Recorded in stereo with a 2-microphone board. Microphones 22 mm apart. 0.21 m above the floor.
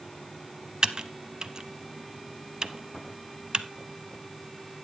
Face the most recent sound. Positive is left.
turn(degrees=-40)  # may be behind; listen again after turning